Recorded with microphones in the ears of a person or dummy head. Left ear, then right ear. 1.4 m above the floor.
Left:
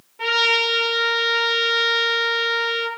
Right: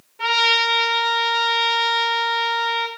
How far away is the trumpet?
About 5 m.